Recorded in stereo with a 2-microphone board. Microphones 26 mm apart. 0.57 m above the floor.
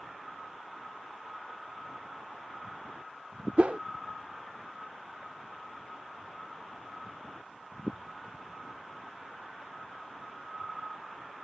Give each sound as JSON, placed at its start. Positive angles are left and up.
{"t": 3.6, "sound": "a whoosh", "side_deg": -65}